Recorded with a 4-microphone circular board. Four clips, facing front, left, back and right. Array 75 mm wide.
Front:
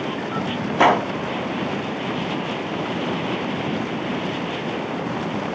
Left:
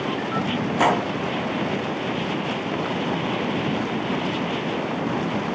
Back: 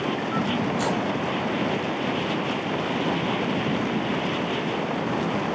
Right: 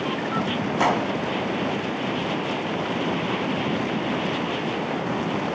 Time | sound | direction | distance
0.8 | a gunshot | 5° left | 0.8 m